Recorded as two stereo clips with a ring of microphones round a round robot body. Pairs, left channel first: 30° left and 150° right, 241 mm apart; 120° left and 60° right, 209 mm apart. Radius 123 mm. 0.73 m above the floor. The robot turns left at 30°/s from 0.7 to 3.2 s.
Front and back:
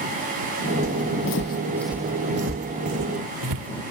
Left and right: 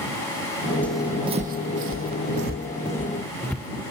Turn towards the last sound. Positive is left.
turn(degrees=-155)